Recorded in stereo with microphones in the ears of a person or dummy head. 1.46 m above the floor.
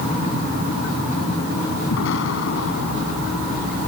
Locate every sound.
1.9 s an explosion: 65° left (ahead or behind)